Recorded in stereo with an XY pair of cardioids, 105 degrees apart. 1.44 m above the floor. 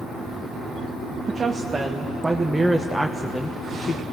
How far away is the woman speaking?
About 1.9 m.